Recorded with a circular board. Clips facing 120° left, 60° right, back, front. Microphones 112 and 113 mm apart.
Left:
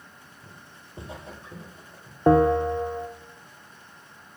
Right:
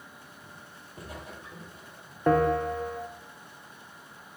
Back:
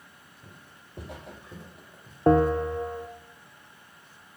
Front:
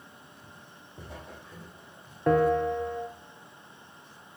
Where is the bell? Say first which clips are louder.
Left 5 dB, back 2 dB; 165° left, 0.9 m.